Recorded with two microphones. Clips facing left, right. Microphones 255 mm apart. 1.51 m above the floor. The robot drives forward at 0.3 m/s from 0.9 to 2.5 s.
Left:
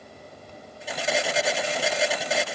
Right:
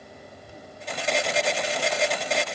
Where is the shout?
I don't hear a shout.